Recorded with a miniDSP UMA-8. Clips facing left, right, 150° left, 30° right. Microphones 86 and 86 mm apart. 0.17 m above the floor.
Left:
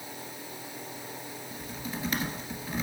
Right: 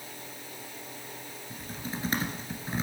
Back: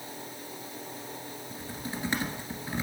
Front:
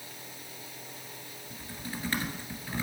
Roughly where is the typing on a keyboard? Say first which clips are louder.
Right 1 dB, back 2 dB; behind right.